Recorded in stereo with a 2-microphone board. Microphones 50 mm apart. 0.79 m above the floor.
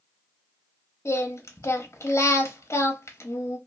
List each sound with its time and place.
1.1 s singing: 70° left (ahead or behind), 0.8 m